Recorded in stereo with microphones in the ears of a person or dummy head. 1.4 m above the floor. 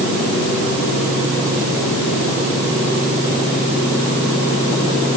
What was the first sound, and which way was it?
Only background noise.